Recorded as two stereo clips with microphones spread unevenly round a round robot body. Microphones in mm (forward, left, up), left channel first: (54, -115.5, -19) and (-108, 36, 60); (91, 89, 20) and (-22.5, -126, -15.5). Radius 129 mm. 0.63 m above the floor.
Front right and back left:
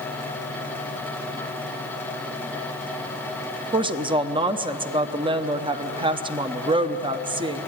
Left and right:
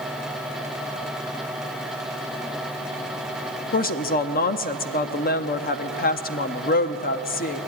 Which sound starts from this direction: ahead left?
A woman speaking, at 3.7 s.